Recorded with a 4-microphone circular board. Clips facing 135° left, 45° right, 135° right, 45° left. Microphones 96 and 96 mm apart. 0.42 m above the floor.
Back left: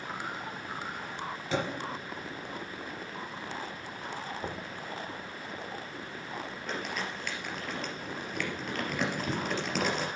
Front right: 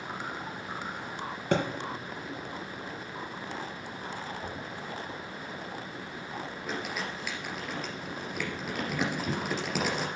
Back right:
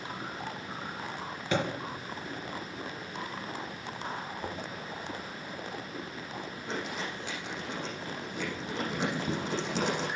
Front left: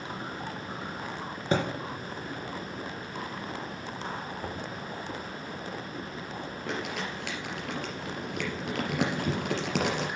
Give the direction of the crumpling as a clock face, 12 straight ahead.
11 o'clock.